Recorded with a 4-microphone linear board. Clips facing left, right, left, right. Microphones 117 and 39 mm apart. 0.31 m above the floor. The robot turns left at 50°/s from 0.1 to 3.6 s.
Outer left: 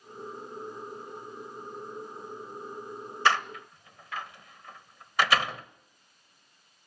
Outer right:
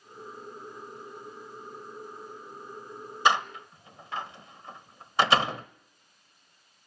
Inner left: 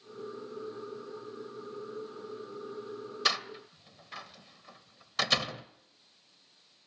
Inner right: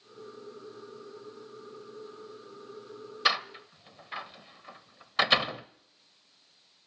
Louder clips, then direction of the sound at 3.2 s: Outer right 2 dB, inner right 4 dB; 20° right (ahead or behind).